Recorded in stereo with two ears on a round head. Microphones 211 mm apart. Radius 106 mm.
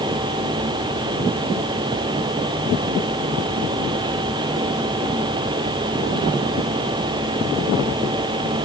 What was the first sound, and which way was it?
Only background noise.